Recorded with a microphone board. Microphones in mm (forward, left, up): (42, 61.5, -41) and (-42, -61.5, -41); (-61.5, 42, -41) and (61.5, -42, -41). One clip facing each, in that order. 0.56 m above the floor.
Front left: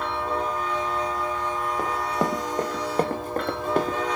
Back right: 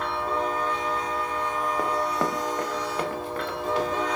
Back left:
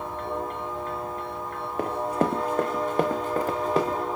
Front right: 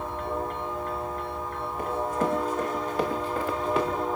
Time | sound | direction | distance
1.8 | running footsteps | 145° left | 1.3 m